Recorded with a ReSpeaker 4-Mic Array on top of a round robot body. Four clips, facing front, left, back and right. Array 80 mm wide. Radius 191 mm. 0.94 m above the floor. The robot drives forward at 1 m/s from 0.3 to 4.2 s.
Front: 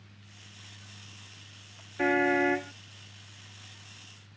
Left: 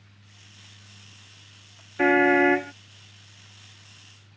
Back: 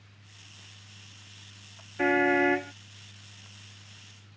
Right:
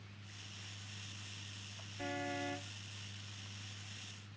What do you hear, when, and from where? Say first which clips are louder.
2.0 s a car horn: left 23 dB, back 2 dB; 90° left; by 2.7 s 95° left